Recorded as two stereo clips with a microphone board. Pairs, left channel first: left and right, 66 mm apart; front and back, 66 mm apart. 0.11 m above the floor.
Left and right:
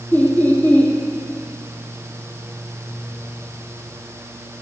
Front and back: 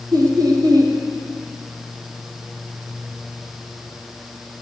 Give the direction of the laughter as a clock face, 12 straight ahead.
7 o'clock.